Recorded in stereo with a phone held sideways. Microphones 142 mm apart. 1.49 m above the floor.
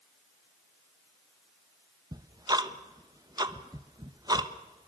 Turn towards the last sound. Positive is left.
turn(degrees=-30)  # may be behind; listen again after turning